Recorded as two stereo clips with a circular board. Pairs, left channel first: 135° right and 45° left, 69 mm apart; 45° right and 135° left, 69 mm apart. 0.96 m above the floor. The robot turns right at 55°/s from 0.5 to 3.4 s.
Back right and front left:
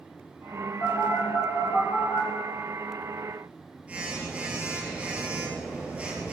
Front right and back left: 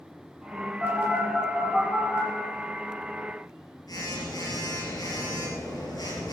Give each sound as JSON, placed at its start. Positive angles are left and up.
{"t": 0.8, "sound": "a phone buzzing", "azimuth_deg": -170, "distance_m": 4.5}